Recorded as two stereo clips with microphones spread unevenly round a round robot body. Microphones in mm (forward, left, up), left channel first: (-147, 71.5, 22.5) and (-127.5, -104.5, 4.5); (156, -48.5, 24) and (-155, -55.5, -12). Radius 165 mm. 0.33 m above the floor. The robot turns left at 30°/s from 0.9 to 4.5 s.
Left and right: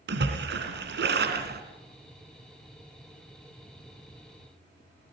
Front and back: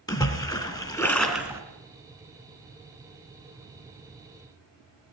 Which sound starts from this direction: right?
A splash, at 0.1 s.